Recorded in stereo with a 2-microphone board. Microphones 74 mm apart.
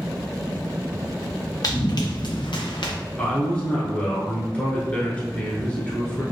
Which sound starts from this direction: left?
Running footsteps, at 1.6 s.